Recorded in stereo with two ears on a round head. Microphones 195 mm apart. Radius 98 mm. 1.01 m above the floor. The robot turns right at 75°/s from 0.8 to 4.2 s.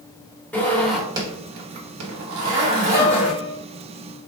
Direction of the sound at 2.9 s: 115° left.